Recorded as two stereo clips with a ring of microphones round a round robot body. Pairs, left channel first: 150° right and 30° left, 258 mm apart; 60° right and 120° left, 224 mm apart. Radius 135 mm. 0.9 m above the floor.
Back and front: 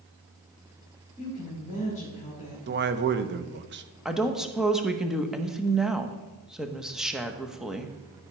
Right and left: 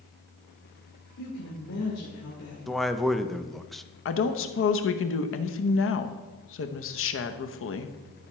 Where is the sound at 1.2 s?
85° right, 3 m.